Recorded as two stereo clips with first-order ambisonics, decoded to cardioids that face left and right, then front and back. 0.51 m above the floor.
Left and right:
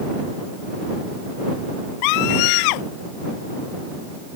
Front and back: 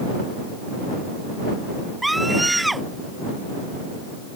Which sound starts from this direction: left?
A scream, at 2.0 s.